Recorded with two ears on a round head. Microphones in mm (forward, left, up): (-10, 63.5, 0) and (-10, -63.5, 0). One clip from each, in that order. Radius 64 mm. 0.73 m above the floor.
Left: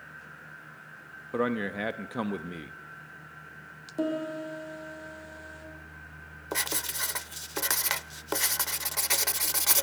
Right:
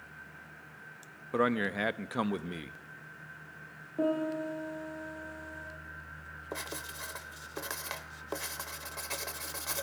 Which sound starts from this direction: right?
A man speaking, at 1.3 s.